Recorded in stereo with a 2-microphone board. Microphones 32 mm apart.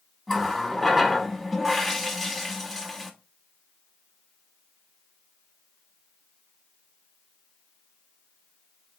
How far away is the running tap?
About 0.9 m.